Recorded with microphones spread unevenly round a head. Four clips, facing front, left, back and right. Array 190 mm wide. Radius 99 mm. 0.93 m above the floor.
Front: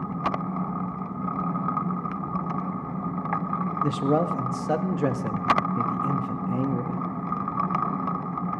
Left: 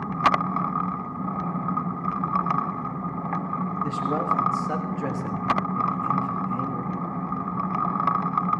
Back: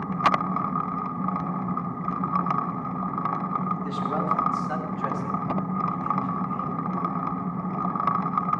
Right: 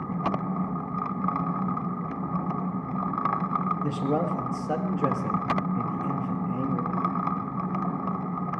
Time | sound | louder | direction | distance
3.8 | a man speaking | left 1 dB, front 3 dB | 15° right | 1.6 m